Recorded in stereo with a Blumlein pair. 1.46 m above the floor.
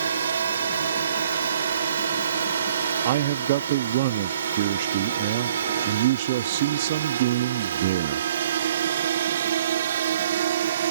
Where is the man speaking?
55° right.